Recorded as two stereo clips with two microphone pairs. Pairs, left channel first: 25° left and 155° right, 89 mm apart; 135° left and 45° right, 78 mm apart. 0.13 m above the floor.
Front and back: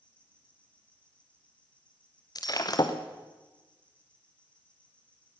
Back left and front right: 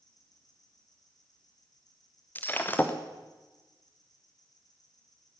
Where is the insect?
105° left, 6 m.